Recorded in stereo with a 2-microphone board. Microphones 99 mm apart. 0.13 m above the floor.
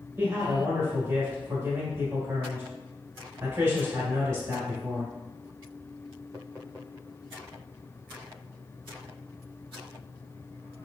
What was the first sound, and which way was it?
A man speaking, 30° right (ahead or behind).